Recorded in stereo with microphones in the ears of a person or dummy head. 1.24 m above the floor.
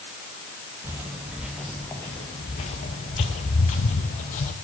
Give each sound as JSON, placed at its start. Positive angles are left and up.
{"t": 0.8, "sound": "footsteps", "side_deg": -15, "distance_m": 1.5}